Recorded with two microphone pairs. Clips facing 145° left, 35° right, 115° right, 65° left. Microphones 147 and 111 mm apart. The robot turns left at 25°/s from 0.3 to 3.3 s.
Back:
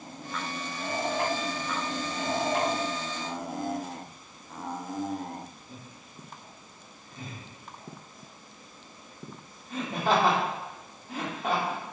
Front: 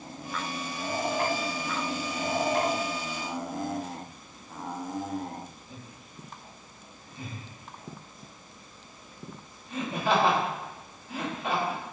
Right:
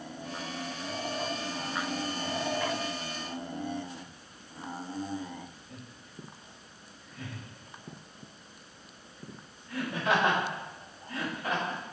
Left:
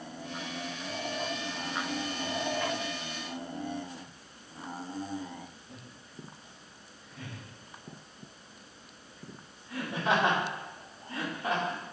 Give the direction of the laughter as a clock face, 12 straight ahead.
8 o'clock.